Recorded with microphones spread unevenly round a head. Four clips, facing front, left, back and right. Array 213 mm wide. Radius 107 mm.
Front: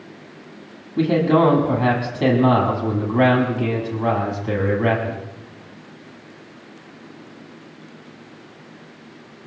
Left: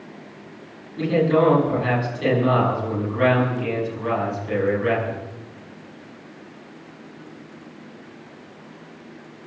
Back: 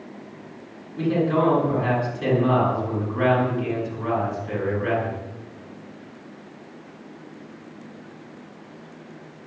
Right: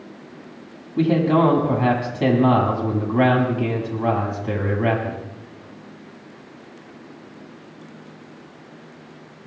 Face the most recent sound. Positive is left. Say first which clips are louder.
# right 1 dB, front 5 dB
turn(degrees=-45)